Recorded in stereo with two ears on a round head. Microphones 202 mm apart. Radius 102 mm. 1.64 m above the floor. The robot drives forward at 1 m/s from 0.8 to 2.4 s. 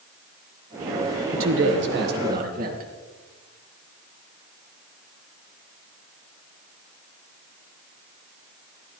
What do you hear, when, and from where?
1.3 s a man speaking: 70° right (ahead or behind), 1.5 m; by 2.9 s 40° right (ahead or behind), 2 m